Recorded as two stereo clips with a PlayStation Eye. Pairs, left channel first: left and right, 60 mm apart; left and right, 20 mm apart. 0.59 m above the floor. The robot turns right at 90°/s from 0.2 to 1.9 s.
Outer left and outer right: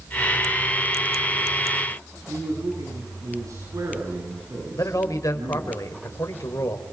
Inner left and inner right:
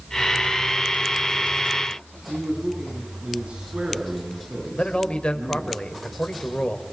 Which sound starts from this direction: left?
A man speaking, at 4.7 s.